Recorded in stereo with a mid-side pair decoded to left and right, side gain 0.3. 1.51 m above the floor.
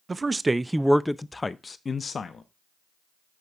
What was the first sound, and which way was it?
A man speaking, 40° right.